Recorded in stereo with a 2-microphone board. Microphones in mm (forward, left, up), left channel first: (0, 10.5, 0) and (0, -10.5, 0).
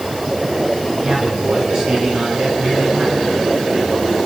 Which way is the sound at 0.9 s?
60° right (ahead or behind).